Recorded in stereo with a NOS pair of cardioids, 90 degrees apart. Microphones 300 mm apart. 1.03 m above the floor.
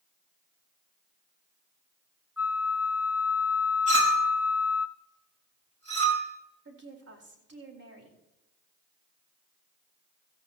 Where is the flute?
5° right, 1.0 m.